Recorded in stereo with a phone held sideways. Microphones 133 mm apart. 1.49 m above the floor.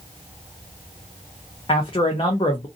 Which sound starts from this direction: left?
A man speaking, at 1.7 s.